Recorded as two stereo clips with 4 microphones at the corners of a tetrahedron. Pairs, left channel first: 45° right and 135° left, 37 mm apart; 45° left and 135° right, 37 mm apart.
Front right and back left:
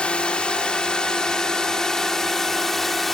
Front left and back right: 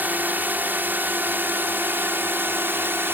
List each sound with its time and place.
0.0 s a drone: 105° right; by 3.1 s 125° right